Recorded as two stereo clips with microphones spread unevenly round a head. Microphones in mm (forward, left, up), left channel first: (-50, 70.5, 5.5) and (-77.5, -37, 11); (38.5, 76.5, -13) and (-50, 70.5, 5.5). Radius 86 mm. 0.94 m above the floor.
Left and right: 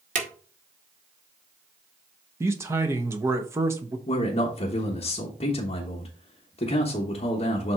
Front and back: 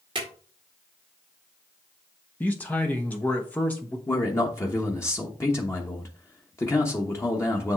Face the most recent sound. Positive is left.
turn(degrees=50)